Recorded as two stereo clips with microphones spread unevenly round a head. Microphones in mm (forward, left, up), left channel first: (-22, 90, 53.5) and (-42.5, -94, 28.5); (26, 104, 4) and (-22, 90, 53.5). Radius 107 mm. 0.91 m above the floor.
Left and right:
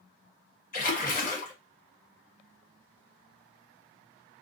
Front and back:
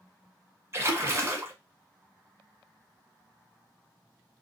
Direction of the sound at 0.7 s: 125° left.